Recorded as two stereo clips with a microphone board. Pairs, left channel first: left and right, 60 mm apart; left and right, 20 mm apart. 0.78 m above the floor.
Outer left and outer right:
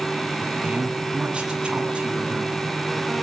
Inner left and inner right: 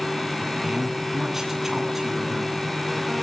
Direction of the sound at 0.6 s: 20° right (ahead or behind).